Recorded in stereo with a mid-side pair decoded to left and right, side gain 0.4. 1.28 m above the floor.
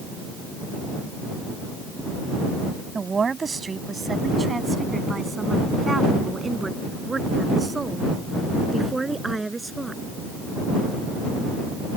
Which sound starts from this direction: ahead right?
A woman speaking, at 3.0 s.